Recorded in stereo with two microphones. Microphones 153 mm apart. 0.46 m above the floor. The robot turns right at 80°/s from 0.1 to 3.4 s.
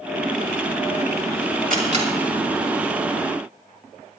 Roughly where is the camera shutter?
Right.